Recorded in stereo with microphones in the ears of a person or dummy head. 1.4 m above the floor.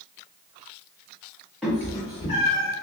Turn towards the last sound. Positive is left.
turn(degrees=45)  # may be behind; listen again after turning